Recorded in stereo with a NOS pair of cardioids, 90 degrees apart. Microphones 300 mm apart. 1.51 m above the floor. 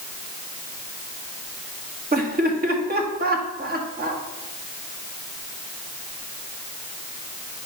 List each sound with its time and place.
2.1 s laughter: 30° right, 2 m